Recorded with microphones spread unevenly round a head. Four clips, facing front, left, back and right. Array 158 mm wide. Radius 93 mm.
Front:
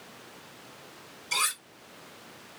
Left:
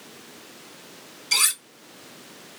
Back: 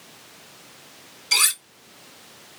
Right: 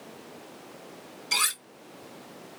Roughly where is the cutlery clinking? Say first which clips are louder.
Left 1 dB, back 3 dB; behind.